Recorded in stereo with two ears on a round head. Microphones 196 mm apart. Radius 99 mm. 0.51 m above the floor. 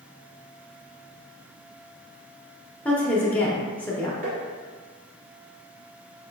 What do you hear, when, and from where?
2.9 s a woman speaking: 10° left (ahead or behind), 0.7 m
4.2 s tapping: 40° right (ahead or behind), 1.6 m